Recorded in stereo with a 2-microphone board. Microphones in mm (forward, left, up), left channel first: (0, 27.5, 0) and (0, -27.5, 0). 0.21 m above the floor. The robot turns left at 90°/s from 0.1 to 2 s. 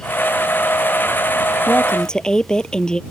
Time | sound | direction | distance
1.7 | a woman speaking | 45° left | ?